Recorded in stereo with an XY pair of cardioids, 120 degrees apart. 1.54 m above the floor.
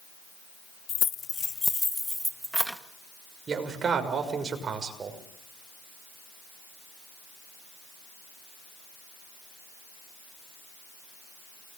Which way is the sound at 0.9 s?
55° left.